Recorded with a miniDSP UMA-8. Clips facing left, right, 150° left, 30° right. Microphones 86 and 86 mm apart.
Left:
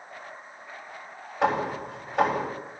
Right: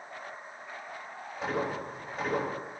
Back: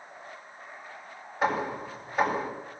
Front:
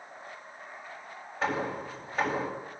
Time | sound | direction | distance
1.4 | hammering | 75° left | 8 m